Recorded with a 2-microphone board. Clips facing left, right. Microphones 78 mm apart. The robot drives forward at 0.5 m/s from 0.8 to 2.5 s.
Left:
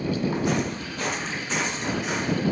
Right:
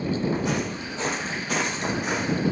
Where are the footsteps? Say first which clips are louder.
Left 1 dB; 5° left (ahead or behind), 0.9 m; by 2.4 s 50° right (ahead or behind), 1.4 m.